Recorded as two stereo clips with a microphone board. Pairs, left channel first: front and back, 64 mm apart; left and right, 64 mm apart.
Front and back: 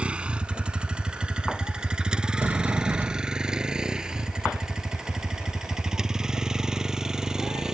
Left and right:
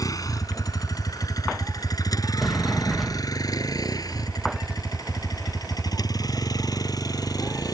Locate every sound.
0.0 s a vehicle: 110° left; by 7.8 s 100° left
2.4 s a sliding door: straight behind